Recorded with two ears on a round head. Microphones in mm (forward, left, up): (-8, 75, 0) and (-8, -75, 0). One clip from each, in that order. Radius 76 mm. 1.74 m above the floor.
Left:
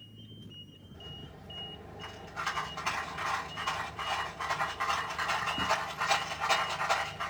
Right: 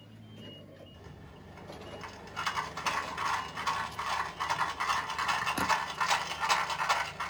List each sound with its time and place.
0.9 s a rattle: 40° right (ahead or behind), 2.5 m